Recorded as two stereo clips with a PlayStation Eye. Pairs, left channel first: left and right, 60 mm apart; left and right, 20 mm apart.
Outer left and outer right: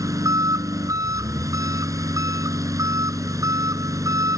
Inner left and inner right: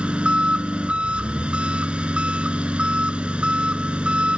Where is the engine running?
70° right (ahead or behind).